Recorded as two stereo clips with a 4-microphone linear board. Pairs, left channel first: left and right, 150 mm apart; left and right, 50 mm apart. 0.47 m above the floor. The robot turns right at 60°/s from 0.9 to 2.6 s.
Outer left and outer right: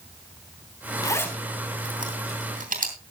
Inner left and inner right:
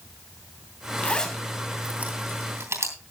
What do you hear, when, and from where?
1.0 s a zipper: 25° left (ahead or behind), 2.5 m; by 3.0 s 65° right (ahead or behind), 2.5 m